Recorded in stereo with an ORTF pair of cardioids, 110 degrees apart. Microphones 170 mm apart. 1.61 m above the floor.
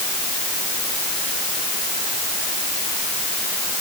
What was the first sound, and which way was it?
Only background noise.